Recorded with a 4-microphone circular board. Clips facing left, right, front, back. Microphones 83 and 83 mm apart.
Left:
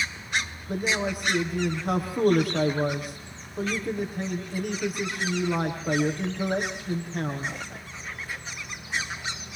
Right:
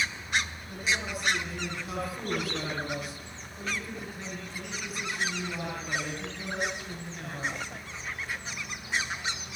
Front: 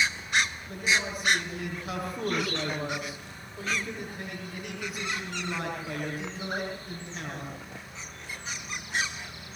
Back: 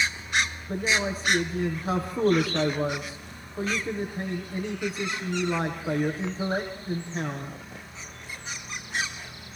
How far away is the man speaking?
About 7.5 m.